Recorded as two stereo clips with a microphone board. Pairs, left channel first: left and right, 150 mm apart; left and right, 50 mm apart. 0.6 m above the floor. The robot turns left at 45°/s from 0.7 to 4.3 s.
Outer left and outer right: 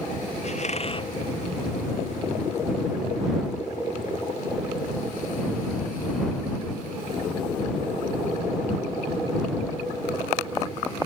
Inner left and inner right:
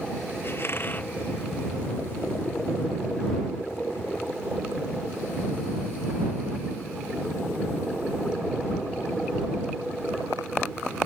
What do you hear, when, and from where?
0.4 s a squeak: 50° left (ahead or behind); by 1.1 s 30° left (ahead or behind)